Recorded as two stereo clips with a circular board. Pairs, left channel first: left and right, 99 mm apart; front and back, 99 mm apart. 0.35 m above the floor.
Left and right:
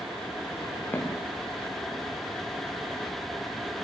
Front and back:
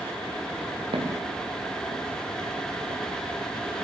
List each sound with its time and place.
0.9 s footsteps: 155° left, 4 m; by 3.9 s 175° right, 4 m